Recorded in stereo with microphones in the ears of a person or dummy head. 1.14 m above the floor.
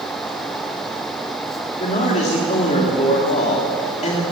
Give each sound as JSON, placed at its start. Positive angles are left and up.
{"t": 1.8, "sound": "a man speaking", "side_deg": 30, "distance_m": 3.0}